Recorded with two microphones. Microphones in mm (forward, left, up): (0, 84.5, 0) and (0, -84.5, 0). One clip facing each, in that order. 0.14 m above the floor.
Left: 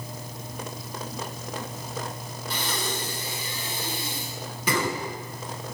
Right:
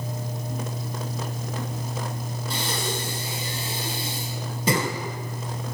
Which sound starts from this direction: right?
Breathing, at 2.5 s.